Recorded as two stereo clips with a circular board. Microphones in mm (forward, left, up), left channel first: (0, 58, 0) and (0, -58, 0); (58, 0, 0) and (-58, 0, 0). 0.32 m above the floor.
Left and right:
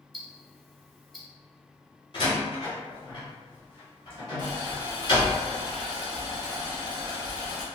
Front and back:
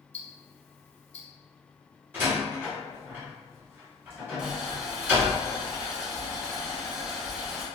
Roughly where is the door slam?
Behind left.